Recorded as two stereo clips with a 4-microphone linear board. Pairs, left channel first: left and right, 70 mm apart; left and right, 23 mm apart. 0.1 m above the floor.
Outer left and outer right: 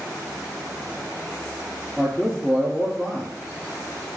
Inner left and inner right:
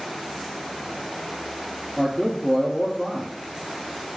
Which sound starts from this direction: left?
A man speaking, at 2.0 s.